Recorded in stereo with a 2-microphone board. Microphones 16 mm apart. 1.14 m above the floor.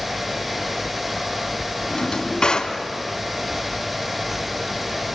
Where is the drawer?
60° left (ahead or behind), 3 m.